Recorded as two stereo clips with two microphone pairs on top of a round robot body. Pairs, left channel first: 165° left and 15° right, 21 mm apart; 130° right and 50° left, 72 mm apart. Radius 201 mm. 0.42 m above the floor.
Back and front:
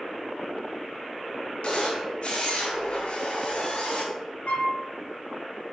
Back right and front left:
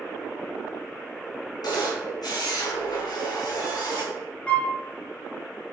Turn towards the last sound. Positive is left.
turn(degrees=155)